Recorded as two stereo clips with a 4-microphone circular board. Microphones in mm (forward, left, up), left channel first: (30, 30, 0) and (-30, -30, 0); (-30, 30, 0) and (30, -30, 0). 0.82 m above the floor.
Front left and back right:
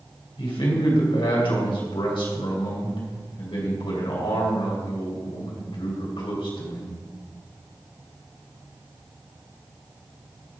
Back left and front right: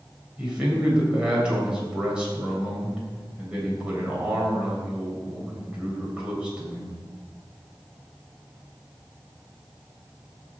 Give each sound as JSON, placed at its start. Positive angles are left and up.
{"t": 0.4, "sound": "a man speaking", "azimuth_deg": 35, "distance_m": 3.5}